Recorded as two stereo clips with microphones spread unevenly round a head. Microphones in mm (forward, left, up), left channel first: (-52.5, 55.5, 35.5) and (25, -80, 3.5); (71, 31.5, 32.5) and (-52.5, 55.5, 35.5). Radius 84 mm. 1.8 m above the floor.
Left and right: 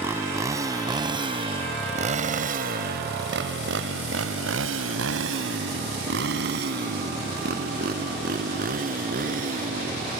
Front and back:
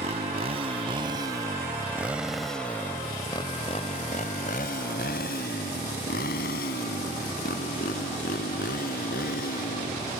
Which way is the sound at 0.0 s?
140° right.